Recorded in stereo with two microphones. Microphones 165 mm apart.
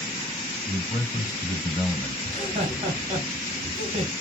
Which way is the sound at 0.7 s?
20° left (ahead or behind).